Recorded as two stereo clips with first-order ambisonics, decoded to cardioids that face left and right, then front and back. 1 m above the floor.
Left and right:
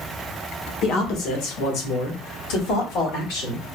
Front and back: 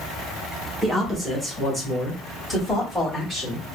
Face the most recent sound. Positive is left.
turn(degrees=90)